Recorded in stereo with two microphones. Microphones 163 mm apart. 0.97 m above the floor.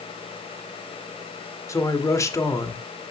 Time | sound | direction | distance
1.7 | a man speaking | 20° left (ahead or behind) | 1.8 m